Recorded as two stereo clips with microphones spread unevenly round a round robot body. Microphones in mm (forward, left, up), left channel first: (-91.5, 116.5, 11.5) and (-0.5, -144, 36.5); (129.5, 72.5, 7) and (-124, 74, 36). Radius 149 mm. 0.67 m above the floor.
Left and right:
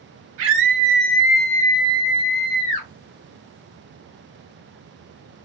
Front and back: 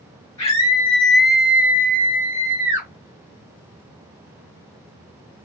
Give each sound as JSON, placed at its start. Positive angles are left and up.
{"t": 0.4, "sound": "a scream", "azimuth_deg": -65, "distance_m": 0.6}